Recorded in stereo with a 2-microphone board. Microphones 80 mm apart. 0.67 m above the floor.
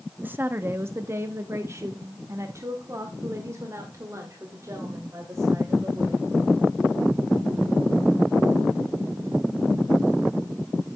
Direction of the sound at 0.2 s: 25° right (ahead or behind).